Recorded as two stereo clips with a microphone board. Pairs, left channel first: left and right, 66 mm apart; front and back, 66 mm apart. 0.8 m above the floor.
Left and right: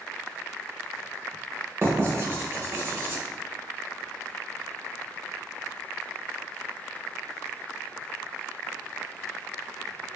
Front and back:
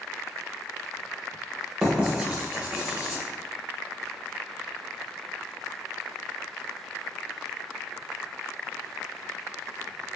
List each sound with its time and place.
1.8 s writing: 110° right, 0.9 m